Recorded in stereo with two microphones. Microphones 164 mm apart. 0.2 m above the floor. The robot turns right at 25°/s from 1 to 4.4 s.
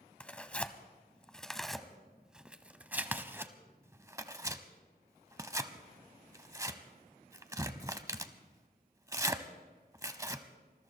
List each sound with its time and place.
0.2 s tearing paper: 5° left (ahead or behind), 0.8 m; by 10.9 s 20° right (ahead or behind), 0.8 m